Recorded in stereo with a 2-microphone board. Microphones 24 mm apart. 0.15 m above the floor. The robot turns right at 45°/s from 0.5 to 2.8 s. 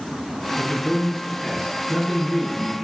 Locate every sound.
0.6 s a man speaking: 95° left, 1.3 m; by 2.8 s 160° right, 1.3 m